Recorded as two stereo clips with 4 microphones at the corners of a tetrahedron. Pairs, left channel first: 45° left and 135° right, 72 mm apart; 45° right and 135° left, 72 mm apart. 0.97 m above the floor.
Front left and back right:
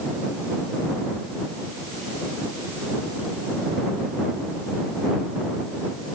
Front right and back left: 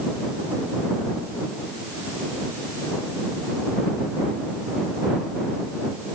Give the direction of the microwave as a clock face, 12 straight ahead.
I don't hear a microwave.